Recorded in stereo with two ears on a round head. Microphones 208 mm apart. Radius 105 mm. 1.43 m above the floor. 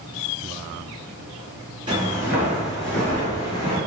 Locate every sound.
1.9 s footsteps: 20° right (ahead or behind), 1.4 m; by 3.8 s 20° left (ahead or behind), 1.8 m